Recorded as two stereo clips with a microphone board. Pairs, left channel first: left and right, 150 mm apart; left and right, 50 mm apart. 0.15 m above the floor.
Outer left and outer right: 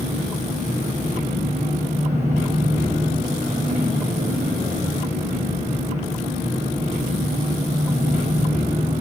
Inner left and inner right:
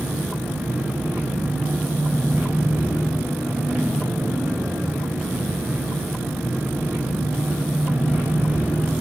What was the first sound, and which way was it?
An engine running, 65° right (ahead or behind).